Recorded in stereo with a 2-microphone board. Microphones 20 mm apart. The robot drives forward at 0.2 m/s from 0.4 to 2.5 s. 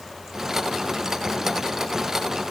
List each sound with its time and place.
Only background noise.